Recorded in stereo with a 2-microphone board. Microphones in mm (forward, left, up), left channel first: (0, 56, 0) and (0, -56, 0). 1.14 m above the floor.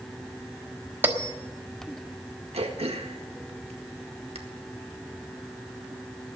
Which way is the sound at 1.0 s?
20° right (ahead or behind).